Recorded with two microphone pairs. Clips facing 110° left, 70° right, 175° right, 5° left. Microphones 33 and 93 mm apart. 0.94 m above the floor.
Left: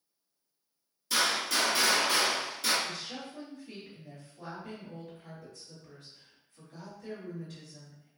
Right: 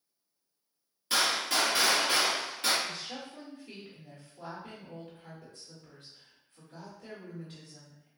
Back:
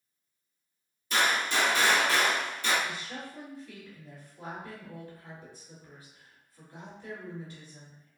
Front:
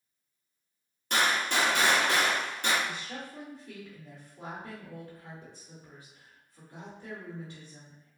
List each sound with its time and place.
1.1 s a gunshot: 20° right, 1.2 m
2.8 s a woman speaking: 30° right, 1.4 m